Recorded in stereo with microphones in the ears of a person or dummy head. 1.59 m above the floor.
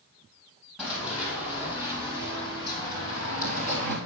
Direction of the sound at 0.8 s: 5° right (ahead or behind).